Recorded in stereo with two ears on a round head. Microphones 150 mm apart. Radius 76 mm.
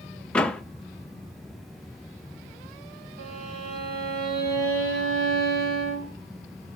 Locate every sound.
0.3 s a door slam: 5° left (ahead or behind), 0.7 m
3.2 s a violin: 60° right (ahead or behind), 3 m